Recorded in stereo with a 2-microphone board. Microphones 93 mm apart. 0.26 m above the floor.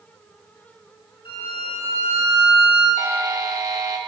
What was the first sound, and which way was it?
A violin, 75° left (ahead or behind).